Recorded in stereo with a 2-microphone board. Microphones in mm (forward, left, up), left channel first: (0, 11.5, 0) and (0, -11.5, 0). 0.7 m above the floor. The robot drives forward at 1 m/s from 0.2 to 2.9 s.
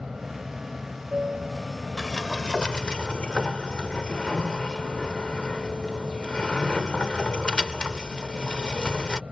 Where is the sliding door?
30° left (ahead or behind); by 9.2 s 45° left (ahead or behind).